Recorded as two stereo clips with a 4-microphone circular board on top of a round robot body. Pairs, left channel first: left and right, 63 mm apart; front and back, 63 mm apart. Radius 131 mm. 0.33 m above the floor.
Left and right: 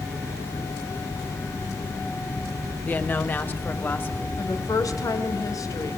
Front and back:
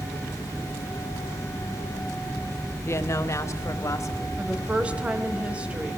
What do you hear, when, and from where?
2.9 s a woman speaking: 35° left, 2 m
4.4 s a woman speaking: 110° left, 2.5 m